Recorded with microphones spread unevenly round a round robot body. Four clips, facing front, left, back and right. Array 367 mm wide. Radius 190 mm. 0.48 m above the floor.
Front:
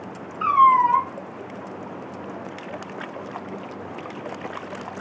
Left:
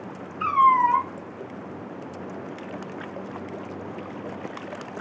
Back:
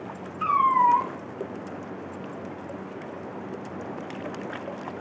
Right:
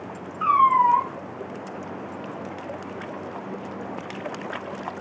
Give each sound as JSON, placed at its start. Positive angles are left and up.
{"t": 0.4, "sound": "a cat meowing", "azimuth_deg": 65, "distance_m": 2.0}